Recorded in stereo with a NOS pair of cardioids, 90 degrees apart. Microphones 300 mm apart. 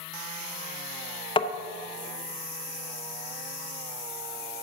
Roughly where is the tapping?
Ahead.